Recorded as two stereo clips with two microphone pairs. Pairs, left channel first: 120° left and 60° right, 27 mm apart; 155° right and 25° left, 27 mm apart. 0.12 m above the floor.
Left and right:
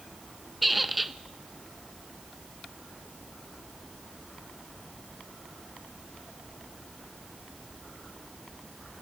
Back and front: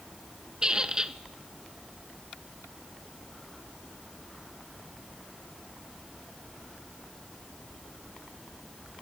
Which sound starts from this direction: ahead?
A squeak, at 0.6 s.